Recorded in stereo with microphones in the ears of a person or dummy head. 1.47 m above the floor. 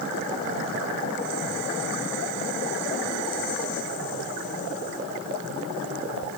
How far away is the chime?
I don't hear a chime.